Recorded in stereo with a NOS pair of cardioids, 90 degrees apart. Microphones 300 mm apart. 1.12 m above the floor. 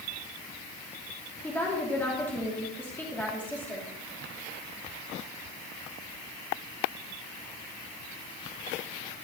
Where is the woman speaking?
5° left, 2.5 m.